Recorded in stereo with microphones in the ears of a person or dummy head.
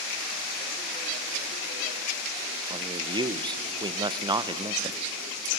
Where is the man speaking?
20° right (ahead or behind), 0.6 m.